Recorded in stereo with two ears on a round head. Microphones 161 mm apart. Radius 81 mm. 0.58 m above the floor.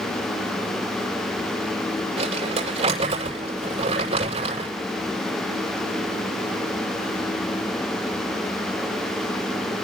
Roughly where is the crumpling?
Right.